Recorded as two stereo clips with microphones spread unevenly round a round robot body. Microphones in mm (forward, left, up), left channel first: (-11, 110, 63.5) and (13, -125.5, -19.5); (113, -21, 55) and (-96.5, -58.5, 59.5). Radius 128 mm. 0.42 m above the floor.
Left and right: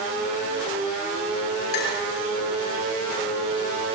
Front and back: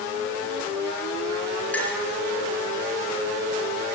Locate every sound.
1.7 s a clink: 95° left, 6 m